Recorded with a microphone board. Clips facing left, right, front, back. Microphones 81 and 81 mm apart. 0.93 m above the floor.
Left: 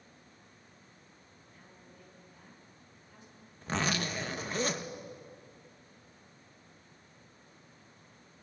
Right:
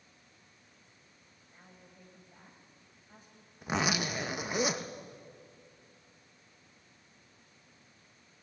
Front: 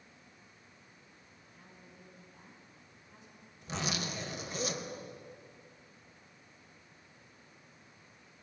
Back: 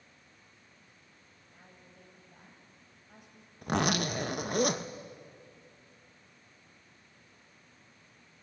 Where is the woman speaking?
145° right, 5.5 m.